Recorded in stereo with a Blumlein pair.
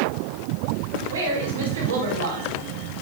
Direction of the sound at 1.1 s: 65° right.